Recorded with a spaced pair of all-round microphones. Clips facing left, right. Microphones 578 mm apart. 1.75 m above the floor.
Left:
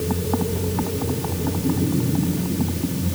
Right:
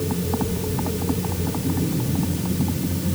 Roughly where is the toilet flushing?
No toilet flushing in this recording.